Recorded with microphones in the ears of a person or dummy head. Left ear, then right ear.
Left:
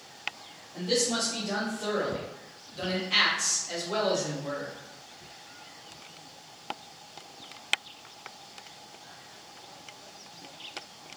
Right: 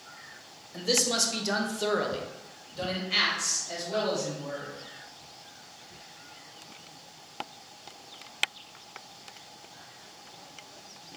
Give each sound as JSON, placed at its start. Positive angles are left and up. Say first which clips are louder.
{"t": 0.7, "sound": "a man speaking", "louder": "right 2 dB", "side_deg": -80, "distance_m": 0.9}